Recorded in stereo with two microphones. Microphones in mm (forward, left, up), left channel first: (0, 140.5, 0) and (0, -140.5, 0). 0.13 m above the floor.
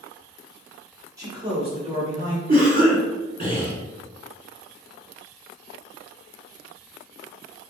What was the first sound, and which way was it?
A man speaking, 10° right (ahead or behind).